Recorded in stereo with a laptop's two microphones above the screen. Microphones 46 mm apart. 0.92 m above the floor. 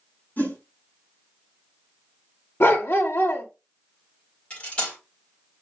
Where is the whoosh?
45° left (ahead or behind), 3 m.